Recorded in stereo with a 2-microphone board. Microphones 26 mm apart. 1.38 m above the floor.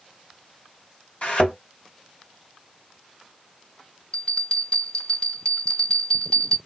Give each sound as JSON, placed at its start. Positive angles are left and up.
{"t": 1.2, "sound": "a thud", "side_deg": 55, "distance_m": 2.0}
{"t": 4.1, "sound": "a bell", "side_deg": 40, "distance_m": 1.9}